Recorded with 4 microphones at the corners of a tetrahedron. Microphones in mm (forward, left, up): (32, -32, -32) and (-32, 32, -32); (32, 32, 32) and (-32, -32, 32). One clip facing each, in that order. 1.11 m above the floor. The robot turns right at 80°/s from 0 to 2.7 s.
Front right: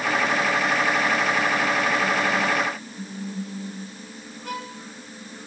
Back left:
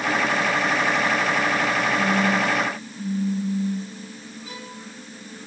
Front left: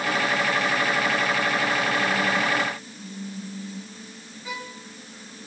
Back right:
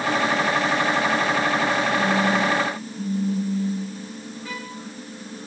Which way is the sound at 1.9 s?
165° right.